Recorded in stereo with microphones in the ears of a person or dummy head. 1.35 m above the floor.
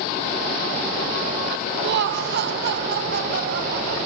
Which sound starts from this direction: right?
Laughter, at 1.8 s.